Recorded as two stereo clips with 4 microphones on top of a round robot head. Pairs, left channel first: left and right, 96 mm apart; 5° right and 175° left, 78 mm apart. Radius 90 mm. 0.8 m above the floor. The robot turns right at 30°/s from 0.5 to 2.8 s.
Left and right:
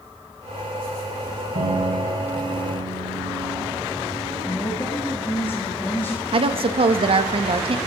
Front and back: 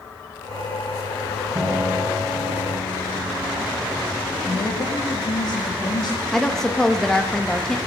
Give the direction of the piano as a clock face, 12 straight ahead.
4 o'clock.